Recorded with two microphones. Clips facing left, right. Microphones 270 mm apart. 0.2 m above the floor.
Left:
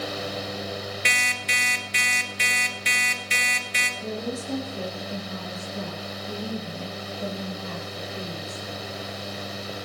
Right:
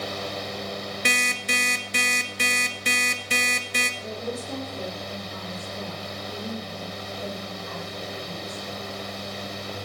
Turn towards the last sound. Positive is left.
turn(degrees=75)  # may be behind; listen again after turning